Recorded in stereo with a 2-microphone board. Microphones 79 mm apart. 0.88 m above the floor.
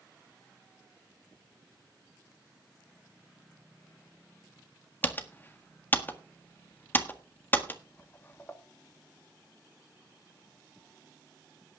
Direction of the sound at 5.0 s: 25° left (ahead or behind).